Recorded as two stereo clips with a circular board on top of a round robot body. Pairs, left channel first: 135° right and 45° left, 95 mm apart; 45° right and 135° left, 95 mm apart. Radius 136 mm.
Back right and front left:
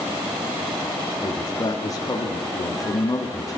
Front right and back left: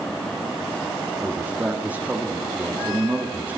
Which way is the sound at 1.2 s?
160° right.